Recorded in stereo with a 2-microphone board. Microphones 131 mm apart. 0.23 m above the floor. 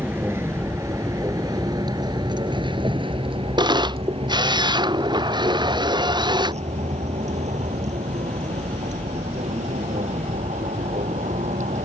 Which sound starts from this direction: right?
A camera shutter, at 3.6 s.